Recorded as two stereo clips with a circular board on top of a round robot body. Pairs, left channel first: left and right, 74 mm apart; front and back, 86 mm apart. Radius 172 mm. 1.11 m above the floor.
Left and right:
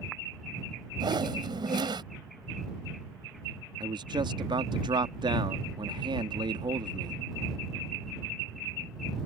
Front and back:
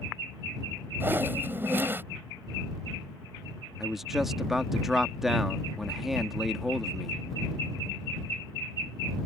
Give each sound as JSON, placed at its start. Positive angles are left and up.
{"t": 1.0, "sound": "a whoosh", "azimuth_deg": -110}
{"t": 3.8, "sound": "a man speaking", "azimuth_deg": -95}